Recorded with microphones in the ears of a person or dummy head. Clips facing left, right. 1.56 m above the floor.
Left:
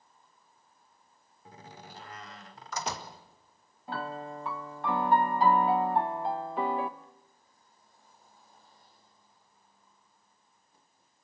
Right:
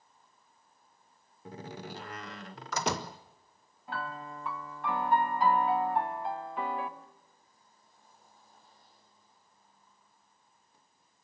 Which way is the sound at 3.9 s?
40° left (ahead or behind).